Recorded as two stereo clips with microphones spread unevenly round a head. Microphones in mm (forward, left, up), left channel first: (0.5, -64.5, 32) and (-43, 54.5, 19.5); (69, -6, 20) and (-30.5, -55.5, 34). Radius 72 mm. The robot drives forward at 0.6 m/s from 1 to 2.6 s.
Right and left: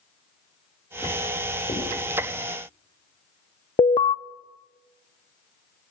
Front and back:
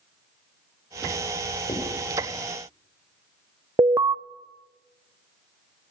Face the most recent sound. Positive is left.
turn(degrees=-105)